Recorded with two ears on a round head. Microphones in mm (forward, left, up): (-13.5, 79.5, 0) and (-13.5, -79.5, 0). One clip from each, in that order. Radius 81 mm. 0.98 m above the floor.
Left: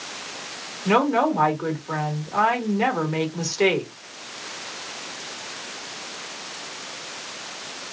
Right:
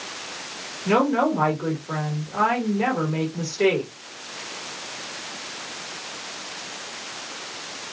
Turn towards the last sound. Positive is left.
turn(degrees=40)  # may be behind; listen again after turning